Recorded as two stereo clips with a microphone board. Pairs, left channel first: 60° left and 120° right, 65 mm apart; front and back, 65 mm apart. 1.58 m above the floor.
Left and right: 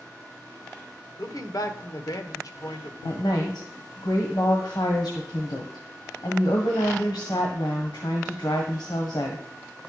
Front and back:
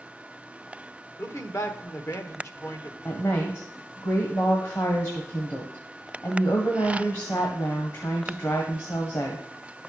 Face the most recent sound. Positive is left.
turn(degrees=45)